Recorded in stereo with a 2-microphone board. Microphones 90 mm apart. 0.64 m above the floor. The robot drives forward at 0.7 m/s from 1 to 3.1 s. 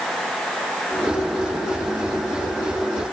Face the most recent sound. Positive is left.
No sound to turn to.